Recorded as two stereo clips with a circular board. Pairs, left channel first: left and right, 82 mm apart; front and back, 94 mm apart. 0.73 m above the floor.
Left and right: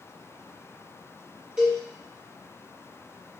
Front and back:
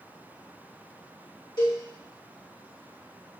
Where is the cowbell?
15° right, 1.6 m.